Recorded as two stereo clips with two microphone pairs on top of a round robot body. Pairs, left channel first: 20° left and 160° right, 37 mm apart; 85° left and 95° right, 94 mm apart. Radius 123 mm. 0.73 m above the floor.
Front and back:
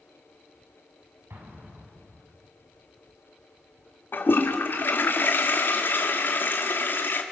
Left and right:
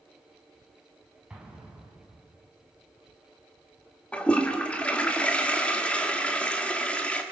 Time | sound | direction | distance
1.3 | an explosion | 175° right | 5.5 m
4.1 | a toilet flushing | 5° left | 1.9 m